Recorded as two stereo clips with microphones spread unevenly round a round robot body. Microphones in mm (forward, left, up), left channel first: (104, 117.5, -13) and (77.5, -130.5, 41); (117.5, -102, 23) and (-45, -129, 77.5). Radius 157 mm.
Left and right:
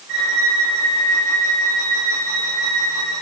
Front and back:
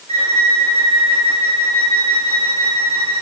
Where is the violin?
115° right, 4 m.